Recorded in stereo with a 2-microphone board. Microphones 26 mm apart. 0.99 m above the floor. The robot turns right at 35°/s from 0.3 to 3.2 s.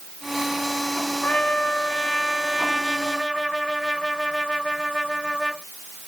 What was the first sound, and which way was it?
A trumpet, 115° left.